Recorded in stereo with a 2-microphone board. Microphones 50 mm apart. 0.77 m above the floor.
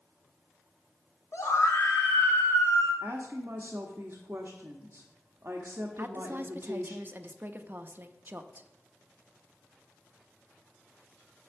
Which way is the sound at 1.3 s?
60° left (ahead or behind).